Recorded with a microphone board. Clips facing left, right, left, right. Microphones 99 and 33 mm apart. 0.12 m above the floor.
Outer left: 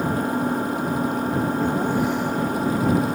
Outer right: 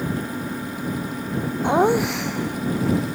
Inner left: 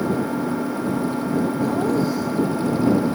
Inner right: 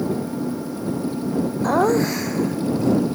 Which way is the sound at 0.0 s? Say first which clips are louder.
Outer left 5 dB, inner left 2 dB; 45° left (ahead or behind).